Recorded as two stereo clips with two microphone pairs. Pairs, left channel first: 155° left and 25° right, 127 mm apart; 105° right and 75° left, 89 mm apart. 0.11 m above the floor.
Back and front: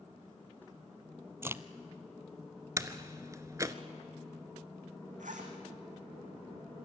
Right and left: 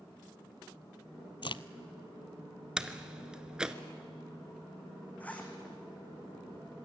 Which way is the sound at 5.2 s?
30° right.